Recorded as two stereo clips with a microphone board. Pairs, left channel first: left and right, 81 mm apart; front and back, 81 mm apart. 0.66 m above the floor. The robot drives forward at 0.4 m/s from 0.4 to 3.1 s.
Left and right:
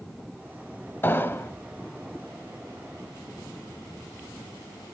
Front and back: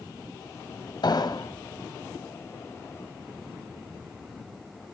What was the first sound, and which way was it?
An explosion, 30° left.